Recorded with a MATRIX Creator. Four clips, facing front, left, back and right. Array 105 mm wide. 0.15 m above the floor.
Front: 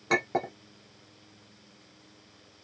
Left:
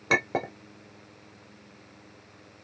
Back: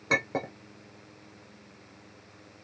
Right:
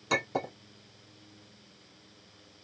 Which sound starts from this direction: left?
A clink, at 0.1 s.